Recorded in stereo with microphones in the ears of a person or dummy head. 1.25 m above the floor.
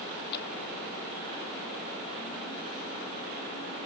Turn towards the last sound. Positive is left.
turn(degrees=65)  # may be behind; listen again after turning